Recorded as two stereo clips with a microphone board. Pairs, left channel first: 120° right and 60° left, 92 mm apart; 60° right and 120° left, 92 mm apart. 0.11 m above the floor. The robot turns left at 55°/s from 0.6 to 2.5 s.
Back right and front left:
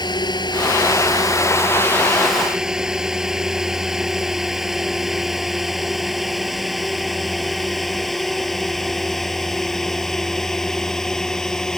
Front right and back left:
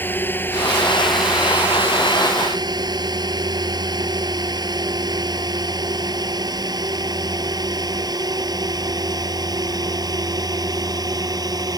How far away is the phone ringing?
I don't hear a phone ringing.